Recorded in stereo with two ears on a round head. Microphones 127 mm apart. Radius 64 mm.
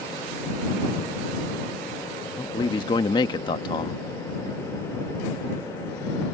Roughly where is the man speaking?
Left.